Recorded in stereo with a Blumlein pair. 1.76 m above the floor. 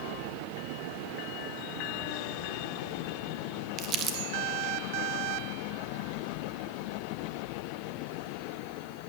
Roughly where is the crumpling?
Ahead right.